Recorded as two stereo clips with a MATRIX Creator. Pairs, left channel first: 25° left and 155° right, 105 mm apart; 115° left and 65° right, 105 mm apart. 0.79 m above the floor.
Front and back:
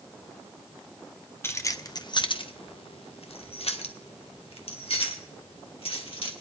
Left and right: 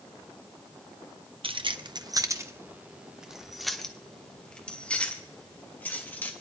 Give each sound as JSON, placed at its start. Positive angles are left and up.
{"t": 1.4, "sound": "keys jangling", "azimuth_deg": -45, "distance_m": 0.7}